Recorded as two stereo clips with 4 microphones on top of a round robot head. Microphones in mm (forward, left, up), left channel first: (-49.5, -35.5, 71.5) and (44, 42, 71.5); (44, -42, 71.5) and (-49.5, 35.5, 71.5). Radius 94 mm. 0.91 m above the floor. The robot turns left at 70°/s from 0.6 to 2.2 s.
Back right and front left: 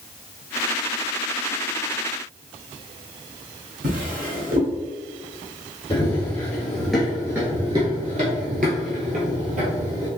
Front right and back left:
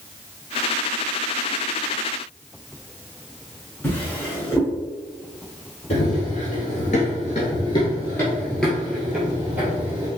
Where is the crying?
I don't hear crying.